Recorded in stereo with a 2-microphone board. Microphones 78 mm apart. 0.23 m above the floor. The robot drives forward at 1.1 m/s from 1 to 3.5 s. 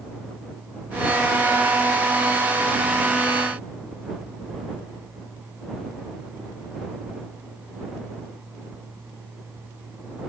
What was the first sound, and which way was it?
Only background noise.